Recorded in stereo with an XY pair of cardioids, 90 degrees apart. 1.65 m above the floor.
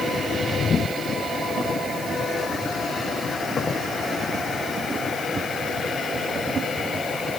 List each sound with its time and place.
Only background noise.